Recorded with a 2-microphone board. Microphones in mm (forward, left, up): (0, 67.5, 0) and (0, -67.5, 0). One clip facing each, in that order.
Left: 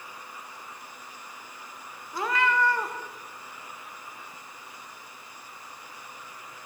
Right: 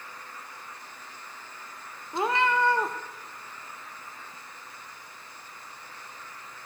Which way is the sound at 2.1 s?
25° right (ahead or behind).